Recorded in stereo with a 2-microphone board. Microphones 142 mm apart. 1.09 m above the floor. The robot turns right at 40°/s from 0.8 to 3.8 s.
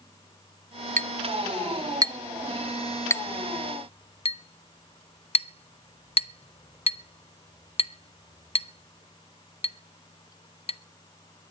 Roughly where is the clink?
Right.